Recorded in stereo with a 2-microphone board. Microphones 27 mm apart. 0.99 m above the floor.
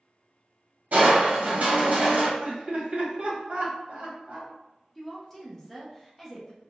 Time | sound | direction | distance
0.9 | crushing | 60° right (ahead or behind) | 1.0 m
2.4 | laughter | 55° right (ahead or behind) | 1.1 m
5.0 | a woman speaking | 10° left (ahead or behind) | 0.7 m